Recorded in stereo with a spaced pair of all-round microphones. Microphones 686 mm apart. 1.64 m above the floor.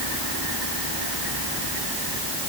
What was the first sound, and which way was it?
Only background noise.